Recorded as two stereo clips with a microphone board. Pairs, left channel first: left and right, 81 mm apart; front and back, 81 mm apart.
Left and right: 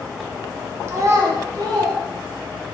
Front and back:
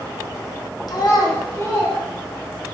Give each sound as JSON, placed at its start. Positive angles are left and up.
{"t": 0.9, "sound": "a child speaking", "azimuth_deg": -35, "distance_m": 0.8}